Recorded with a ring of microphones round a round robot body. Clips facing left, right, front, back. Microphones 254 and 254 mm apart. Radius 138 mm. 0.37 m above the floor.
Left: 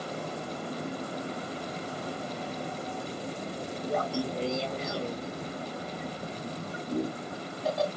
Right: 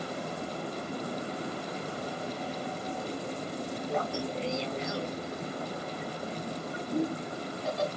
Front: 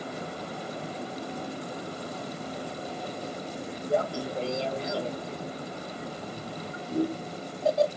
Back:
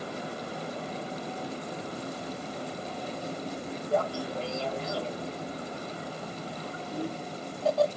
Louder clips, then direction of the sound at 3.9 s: Left 4 dB, front 1 dB; 65° left.